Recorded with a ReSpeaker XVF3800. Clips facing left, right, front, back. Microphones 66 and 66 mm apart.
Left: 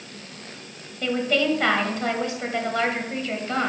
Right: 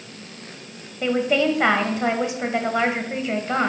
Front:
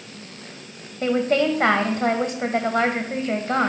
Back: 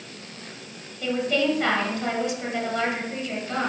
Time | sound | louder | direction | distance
1.0 | a woman speaking | right 3 dB, front 4 dB | 25° right | 1.5 m